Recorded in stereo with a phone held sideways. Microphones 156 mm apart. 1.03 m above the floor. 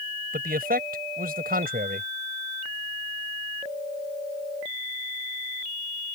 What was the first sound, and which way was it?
A man speaking, 70° right (ahead or behind).